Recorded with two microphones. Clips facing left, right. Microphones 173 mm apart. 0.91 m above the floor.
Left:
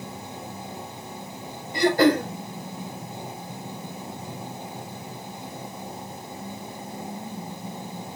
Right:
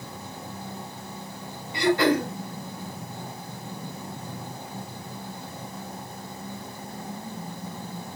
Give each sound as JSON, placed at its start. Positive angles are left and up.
{"t": 1.7, "sound": "throat clearing", "side_deg": 40, "distance_m": 5.5}